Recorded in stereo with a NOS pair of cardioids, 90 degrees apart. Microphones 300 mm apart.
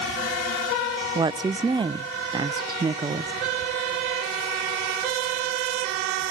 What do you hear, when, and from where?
1.1 s a woman speaking: 15° right, 0.5 m